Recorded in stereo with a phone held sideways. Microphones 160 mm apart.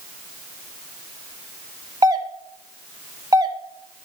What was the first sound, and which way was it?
A doorbell, 25° right (ahead or behind).